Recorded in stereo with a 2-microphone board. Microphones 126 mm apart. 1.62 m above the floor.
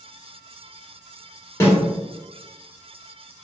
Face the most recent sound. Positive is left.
turn(degrees=20)  # may be behind; listen again after turning